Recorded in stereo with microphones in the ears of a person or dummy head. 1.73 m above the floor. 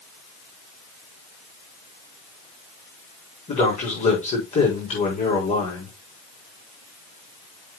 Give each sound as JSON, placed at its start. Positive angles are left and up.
{"t": 3.5, "sound": "a man speaking", "side_deg": 30, "distance_m": 4.5}